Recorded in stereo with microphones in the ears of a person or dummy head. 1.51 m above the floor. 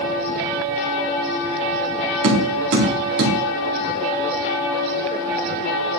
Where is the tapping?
65° right (ahead or behind), 2 m.